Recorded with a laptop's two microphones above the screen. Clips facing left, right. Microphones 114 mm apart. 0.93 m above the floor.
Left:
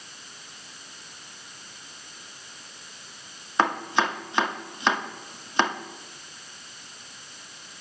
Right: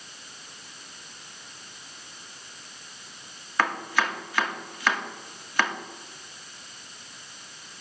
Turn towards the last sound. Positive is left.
turn(degrees=25)  # may be behind; listen again after turning